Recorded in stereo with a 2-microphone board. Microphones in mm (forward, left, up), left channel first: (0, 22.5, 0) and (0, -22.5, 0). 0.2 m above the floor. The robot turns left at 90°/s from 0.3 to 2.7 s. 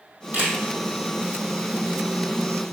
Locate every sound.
0.3 s a camera shutter: 35° right (ahead or behind), 5 m; by 0.6 s 55° right (ahead or behind), 5 m